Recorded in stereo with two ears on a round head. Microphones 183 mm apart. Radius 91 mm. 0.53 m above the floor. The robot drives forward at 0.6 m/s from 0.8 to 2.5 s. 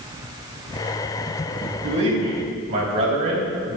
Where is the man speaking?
35° right (ahead or behind), 2.5 m; by 3.5 s 30° right (ahead or behind), 3 m.